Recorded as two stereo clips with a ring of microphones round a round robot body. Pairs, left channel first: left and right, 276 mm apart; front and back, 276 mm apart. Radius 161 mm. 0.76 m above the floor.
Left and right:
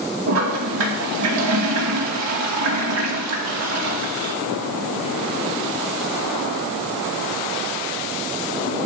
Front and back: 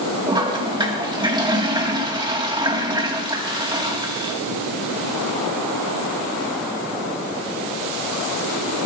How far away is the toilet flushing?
About 2 m.